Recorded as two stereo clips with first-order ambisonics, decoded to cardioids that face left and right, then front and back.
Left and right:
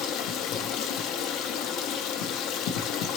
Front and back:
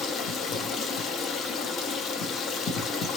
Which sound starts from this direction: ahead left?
Running water, at 0.0 s.